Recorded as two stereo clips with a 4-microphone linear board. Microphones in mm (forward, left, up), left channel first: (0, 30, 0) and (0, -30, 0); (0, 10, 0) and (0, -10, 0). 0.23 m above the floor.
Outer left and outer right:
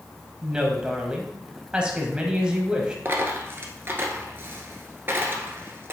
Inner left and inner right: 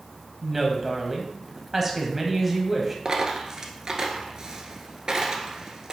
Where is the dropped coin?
40° right (ahead or behind), 1.3 m.